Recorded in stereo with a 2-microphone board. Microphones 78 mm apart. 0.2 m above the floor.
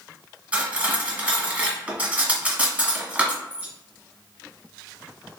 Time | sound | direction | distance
0.5 | cutlery clinking | 20° right (ahead or behind) | 0.8 m